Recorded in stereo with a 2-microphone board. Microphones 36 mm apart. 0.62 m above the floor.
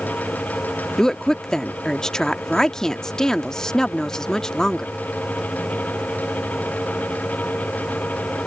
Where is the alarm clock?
I don't hear an alarm clock.